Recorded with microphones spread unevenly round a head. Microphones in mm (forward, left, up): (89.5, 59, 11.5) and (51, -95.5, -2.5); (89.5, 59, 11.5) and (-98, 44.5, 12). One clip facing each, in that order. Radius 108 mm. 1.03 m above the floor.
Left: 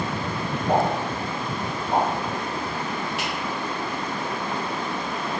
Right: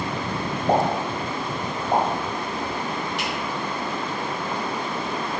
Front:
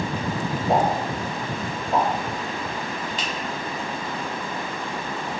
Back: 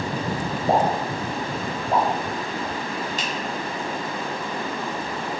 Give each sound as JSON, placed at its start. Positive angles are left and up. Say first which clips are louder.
{"t": 0.7, "sound": "a pop", "louder": "right 1 dB, back 1 dB", "azimuth_deg": -175, "distance_m": 1.0}
{"t": 3.2, "sound": "a finger snap", "louder": "right 1 dB, back 1 dB", "azimuth_deg": 165, "distance_m": 0.7}